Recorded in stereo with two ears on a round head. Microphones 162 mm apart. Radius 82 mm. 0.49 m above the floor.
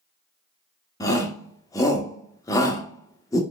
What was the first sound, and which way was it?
A shout, 20° left (ahead or behind).